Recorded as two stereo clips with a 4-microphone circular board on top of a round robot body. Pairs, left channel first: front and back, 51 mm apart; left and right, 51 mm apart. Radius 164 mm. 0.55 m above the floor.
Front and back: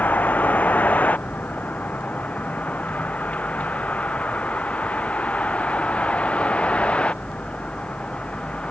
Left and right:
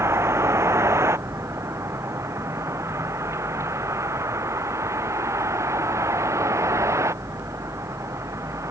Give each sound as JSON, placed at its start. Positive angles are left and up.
{"t": 0.0, "sound": "a vehicle", "azimuth_deg": -60}